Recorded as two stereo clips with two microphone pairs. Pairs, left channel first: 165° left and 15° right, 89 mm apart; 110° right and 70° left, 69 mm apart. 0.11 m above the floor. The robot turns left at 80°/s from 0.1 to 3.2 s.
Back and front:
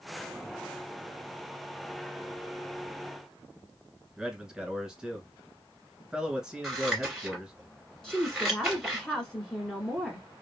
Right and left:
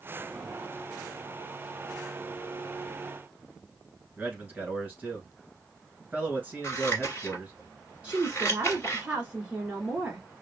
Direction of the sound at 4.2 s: 55° left.